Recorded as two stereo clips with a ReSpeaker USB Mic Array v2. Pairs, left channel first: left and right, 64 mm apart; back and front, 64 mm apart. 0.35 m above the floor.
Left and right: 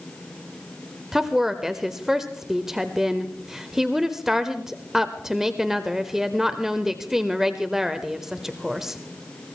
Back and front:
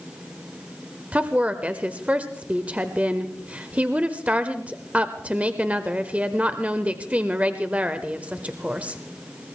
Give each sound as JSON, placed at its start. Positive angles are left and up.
{"t": 1.1, "sound": "a woman speaking", "azimuth_deg": -15, "distance_m": 0.9}